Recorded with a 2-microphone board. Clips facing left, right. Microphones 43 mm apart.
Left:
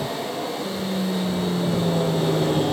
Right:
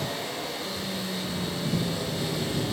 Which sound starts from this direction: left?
An aircraft, at 0.0 s.